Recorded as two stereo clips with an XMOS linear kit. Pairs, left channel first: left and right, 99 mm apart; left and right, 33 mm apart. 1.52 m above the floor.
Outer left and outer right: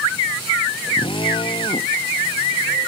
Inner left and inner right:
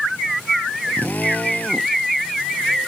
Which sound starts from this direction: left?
A drill, at 1.0 s.